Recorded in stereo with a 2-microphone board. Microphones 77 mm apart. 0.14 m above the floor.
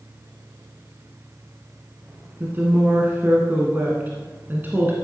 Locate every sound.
2.4 s a woman speaking: 30° right (ahead or behind), 1.8 m